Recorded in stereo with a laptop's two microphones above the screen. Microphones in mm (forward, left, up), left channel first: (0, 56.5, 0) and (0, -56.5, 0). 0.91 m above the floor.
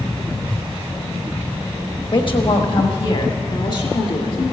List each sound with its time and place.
2.1 s a woman speaking: 50° left (ahead or behind), 1.1 m; by 4.4 s 55° left (ahead or behind), 2 m